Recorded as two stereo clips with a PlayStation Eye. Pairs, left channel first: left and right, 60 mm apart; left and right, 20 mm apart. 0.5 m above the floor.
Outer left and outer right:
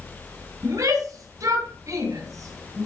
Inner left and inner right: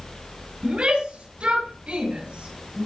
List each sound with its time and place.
0.6 s a shout: 65° right (ahead or behind), 3.5 m; by 2.9 s 55° right (ahead or behind), 4.5 m